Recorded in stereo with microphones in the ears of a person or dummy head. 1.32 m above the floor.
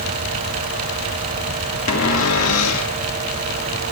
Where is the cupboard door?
85° left, 2.5 m.